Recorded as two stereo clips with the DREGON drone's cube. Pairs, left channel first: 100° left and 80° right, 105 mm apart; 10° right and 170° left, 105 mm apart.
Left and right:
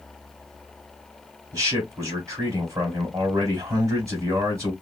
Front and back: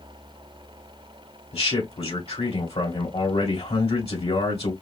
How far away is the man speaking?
About 2.5 m.